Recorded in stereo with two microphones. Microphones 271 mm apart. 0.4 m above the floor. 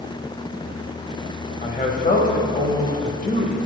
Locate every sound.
1.6 s a man speaking: 30° left (ahead or behind), 2.5 m